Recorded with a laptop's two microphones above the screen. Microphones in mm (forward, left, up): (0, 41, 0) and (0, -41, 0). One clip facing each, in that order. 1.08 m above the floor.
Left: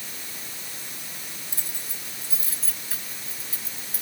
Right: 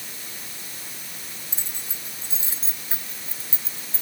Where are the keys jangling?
20° right (ahead or behind); by 4.0 s 30° right (ahead or behind).